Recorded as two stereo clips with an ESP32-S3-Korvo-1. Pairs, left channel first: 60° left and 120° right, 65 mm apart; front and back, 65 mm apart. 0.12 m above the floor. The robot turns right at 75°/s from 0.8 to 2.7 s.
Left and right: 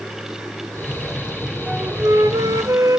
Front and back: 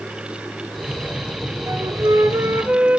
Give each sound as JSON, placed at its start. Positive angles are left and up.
{"t": 1.7, "sound": "a flute", "azimuth_deg": 170, "distance_m": 0.5}